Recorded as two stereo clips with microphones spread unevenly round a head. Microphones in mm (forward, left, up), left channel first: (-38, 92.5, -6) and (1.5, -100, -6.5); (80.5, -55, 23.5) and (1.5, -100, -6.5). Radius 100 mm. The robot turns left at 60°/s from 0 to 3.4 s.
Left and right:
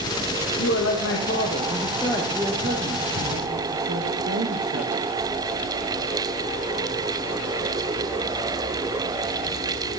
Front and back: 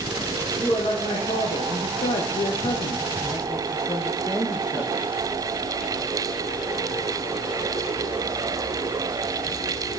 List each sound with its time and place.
0.6 s a man speaking: 110° left, 1.0 m; by 5.0 s 60° right, 1.0 m